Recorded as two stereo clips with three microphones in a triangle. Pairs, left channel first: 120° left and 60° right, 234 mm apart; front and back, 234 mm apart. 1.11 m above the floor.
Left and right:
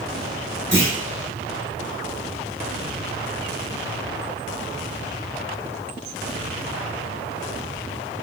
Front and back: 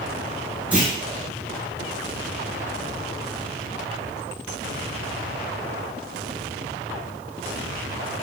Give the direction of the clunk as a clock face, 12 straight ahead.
3 o'clock.